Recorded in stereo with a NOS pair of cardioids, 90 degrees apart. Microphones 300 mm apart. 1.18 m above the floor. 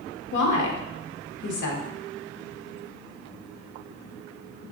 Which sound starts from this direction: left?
A woman speaking, at 0.3 s.